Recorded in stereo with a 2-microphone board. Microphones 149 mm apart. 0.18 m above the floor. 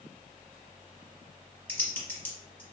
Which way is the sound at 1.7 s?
10° left (ahead or behind).